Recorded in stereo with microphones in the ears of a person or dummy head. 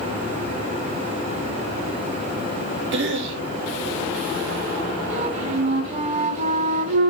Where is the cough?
75° right (ahead or behind), 3 m.